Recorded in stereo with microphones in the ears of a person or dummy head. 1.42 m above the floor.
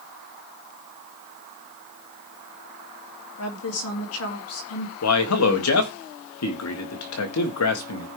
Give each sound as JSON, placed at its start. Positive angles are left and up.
{"t": 3.4, "sound": "a woman speaking", "side_deg": 80, "distance_m": 3.0}
{"t": 5.0, "sound": "a man speaking", "side_deg": 80, "distance_m": 1.6}